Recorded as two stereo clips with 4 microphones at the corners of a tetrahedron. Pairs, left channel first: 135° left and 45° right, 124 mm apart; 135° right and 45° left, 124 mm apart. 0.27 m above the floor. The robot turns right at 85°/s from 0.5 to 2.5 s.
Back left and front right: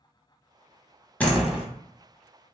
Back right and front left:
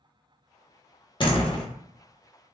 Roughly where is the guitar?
No guitar in this recording.